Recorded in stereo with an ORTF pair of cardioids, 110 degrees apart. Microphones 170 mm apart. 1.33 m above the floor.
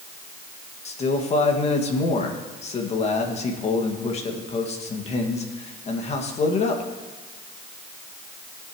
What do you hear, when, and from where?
0.8 s a man speaking: 40° left, 2.0 m